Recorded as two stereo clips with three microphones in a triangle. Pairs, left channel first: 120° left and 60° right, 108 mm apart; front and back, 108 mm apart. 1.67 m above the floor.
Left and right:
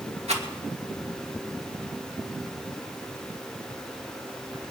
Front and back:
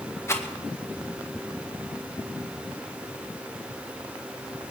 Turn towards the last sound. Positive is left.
turn(degrees=-65)